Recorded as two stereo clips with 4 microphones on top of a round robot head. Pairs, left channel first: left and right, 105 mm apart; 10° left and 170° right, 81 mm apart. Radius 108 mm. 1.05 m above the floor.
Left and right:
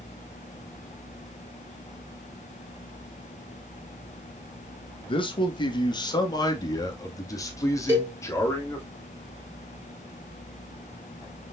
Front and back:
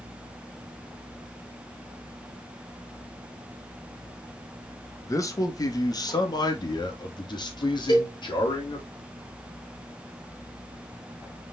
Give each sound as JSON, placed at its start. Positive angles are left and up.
{"t": 5.1, "sound": "a man speaking", "azimuth_deg": 55, "distance_m": 1.7}
{"t": 7.9, "sound": "a cowbell", "azimuth_deg": -20, "distance_m": 4.0}